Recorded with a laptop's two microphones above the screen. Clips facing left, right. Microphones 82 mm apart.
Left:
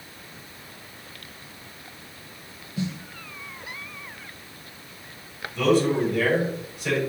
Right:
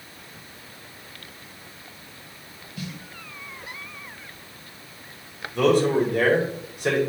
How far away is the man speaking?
About 4 m.